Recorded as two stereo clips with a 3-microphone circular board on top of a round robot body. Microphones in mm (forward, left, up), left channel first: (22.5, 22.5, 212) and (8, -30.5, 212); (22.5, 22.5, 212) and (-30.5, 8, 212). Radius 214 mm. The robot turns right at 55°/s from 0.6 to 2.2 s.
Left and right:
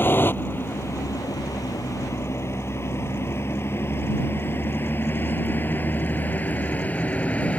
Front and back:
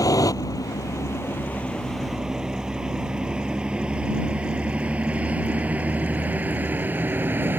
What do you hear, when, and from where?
0.0 s a vehicle: 25° left; by 7.6 s 145° left